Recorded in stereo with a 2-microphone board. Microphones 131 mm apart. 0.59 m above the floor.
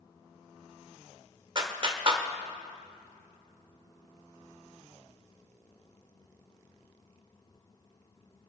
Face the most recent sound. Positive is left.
turn(degrees=-40)  # may be behind; listen again after turning